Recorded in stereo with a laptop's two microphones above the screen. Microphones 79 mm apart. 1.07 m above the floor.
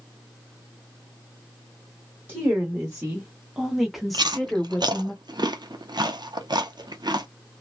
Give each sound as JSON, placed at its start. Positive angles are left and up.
{"t": 2.3, "sound": "a woman speaking", "side_deg": -15, "distance_m": 1.3}
{"t": 4.1, "sound": "chewing", "side_deg": -60, "distance_m": 0.5}